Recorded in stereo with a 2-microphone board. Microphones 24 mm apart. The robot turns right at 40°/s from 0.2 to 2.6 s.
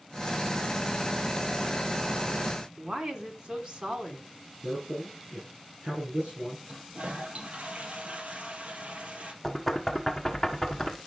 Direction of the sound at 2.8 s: 45° right (ahead or behind).